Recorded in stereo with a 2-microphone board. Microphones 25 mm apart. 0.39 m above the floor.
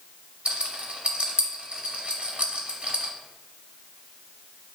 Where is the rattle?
70° right (ahead or behind), 0.6 m.